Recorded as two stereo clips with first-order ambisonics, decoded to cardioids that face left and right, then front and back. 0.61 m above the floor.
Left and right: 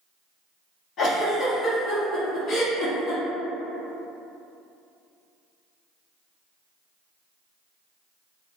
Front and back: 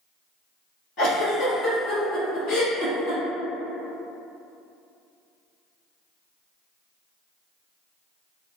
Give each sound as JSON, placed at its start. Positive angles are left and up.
{"t": 1.0, "sound": "a giggle", "azimuth_deg": 30, "distance_m": 1.3}